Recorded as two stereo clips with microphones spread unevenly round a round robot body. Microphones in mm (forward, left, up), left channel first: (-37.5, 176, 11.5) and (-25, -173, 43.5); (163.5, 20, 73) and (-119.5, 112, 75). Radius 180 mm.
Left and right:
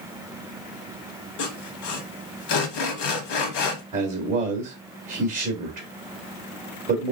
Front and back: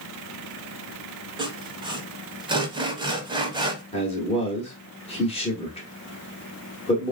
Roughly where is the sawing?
Left.